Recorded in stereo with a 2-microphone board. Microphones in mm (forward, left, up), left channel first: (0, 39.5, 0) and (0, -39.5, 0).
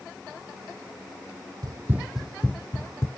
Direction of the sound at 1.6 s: 55° right (ahead or behind).